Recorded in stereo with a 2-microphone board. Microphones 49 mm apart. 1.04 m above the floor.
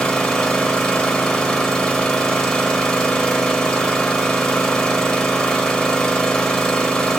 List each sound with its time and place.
0.0 s an engine running: 20° left (ahead or behind), 0.8 m